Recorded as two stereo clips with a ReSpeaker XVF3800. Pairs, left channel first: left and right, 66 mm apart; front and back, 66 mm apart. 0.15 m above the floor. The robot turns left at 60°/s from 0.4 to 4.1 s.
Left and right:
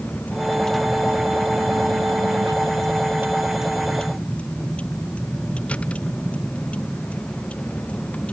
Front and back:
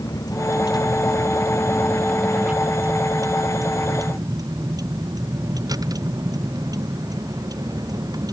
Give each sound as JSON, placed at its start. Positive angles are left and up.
{"t": 0.0, "sound": "a vehicle", "azimuth_deg": 20}